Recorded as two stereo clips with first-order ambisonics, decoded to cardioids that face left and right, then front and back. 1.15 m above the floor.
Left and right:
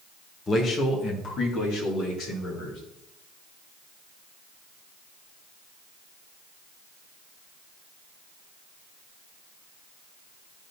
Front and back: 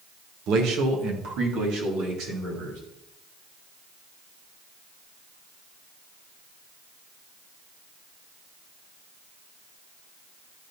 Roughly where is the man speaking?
Behind left.